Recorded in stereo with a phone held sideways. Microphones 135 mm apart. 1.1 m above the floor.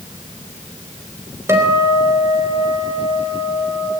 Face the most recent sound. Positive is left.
turn(degrees=-20)  # may be behind; listen again after turning